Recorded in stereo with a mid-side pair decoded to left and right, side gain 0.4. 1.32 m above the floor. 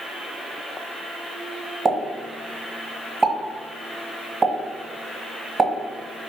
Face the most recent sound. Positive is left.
turn(degrees=-40)